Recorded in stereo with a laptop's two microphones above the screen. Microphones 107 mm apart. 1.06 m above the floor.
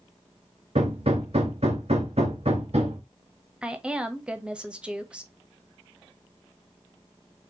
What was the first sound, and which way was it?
Hammering, 65° right (ahead or behind).